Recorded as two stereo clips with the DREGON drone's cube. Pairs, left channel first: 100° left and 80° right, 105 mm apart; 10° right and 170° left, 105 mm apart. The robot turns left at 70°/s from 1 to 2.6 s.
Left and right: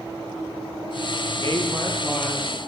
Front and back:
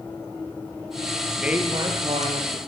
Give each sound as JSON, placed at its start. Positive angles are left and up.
{"t": 1.4, "sound": "a woman speaking", "azimuth_deg": -105, "distance_m": 8.0}